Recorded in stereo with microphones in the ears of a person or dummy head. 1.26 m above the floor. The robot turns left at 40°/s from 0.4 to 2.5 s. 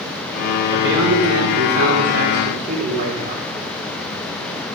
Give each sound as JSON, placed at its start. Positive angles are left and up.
{"t": 0.7, "sound": "a man speaking", "azimuth_deg": -70, "distance_m": 3.5}